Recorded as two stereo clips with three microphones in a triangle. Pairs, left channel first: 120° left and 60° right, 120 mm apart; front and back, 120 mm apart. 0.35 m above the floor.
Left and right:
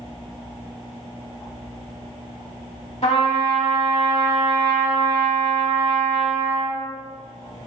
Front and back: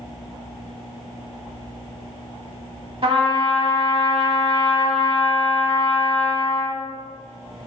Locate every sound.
3.0 s a trumpet: 140° left, 0.9 m